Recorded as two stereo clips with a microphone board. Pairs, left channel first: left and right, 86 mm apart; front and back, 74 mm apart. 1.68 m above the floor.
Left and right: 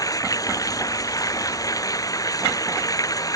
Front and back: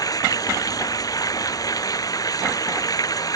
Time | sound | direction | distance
0.0 | running water | 40° left | ?